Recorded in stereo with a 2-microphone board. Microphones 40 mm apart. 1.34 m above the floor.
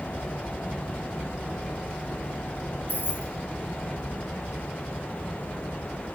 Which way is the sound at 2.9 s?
55° left (ahead or behind).